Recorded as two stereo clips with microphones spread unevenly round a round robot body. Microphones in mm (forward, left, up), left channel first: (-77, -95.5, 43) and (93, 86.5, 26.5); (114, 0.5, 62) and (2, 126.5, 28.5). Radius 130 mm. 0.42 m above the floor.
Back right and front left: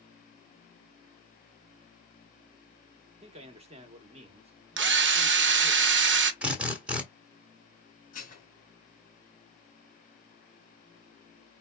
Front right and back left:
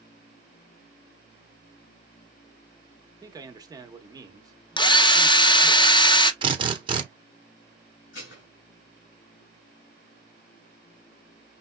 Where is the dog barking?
No dog barking in this recording.